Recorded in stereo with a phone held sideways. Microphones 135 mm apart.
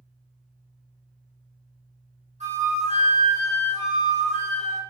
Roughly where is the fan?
Centre.